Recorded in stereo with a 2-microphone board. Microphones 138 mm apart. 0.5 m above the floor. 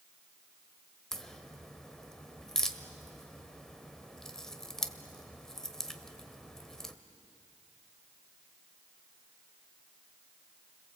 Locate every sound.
1.1 s a crack: 5° left (ahead or behind), 1.1 m